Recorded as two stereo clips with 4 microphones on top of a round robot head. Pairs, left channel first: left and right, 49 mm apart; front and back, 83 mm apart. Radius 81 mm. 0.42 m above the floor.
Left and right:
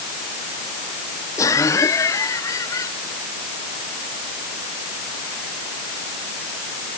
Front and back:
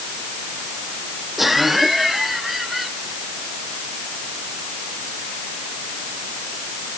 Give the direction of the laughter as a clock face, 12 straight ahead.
9 o'clock.